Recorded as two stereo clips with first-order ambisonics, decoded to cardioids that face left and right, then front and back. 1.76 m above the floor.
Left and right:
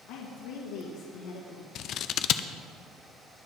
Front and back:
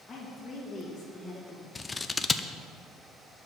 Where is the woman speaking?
80° left, 2 m.